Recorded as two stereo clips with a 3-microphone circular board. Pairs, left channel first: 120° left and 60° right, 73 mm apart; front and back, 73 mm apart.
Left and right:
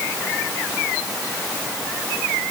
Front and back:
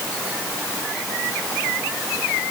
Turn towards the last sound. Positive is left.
No sound to turn to.